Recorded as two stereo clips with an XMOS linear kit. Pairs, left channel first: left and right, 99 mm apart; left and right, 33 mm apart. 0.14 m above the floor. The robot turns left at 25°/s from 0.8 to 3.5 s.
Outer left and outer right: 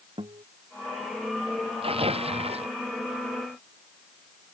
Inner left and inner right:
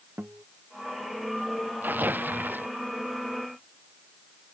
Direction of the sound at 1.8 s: 70° right (ahead or behind).